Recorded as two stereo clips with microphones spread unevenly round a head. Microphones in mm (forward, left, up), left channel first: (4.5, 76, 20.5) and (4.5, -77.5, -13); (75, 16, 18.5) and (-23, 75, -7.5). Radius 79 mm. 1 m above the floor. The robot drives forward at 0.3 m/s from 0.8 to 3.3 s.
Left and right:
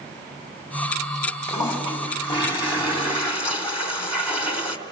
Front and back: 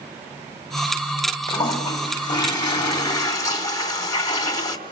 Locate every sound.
1.5 s a toilet flushing: 25° left, 3 m; by 4.8 s 30° left, 2.5 m